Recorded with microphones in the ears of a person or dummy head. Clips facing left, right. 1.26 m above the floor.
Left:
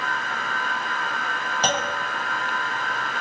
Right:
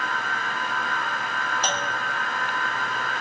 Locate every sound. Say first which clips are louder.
1.6 s a clunk: left 7 dB; 55° left (ahead or behind), 4.5 m